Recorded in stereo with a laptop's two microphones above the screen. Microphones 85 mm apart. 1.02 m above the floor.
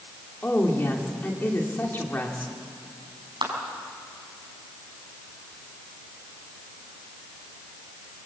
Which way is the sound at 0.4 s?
25° left (ahead or behind).